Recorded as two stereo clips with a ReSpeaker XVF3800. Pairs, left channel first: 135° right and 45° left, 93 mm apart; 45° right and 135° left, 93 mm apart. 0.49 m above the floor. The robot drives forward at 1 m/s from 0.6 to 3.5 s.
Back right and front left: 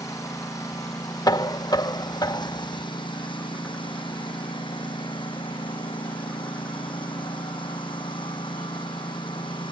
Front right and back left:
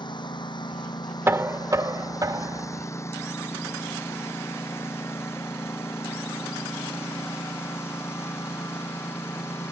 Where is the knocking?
165° right; by 2.9 s 175° right.